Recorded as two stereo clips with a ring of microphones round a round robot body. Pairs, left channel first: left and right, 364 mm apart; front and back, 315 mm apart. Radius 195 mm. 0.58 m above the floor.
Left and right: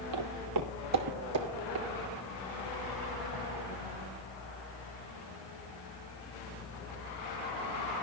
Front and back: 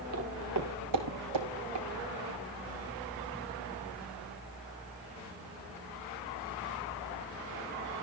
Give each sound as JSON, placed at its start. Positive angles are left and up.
{"t": 0.1, "sound": "footsteps", "azimuth_deg": -125, "distance_m": 1.4}